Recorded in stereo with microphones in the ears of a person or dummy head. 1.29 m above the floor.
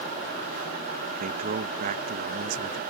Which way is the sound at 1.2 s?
45° right (ahead or behind).